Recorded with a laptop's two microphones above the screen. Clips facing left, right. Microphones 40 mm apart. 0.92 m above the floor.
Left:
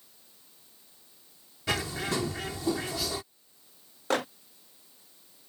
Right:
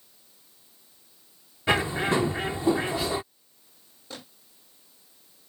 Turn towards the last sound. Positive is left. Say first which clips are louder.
# left 15 dB
turn(degrees=80)